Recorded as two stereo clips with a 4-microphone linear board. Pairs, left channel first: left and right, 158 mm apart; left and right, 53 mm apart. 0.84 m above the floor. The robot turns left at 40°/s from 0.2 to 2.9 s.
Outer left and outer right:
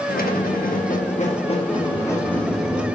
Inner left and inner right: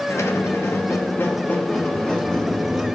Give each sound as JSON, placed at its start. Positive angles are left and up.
{"t": 0.1, "sound": "a squeak", "azimuth_deg": 95, "distance_m": 0.8}